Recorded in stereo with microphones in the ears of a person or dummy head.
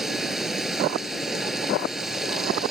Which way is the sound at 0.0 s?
5° right (ahead or behind).